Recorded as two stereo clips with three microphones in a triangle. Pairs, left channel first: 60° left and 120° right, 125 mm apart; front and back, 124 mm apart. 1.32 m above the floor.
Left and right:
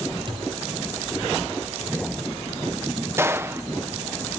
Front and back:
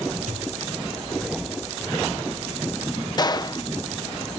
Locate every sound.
0.3 s a thud: 170° right
3.2 s a gunshot: 50° right